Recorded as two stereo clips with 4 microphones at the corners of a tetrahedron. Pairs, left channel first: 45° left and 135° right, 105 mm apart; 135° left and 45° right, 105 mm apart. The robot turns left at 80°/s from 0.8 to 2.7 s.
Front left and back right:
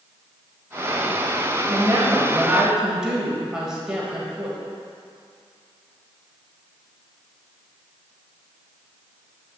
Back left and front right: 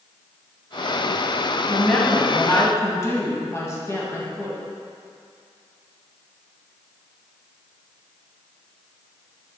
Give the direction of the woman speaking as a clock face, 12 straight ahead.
4 o'clock.